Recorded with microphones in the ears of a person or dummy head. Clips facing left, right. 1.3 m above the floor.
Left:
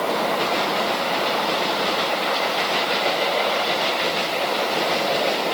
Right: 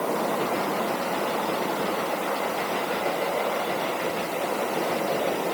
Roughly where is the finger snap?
I don't hear a finger snap.